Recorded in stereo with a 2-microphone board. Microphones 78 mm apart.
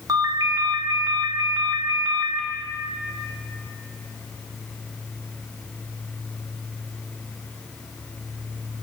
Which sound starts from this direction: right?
A ringtone, at 0.1 s.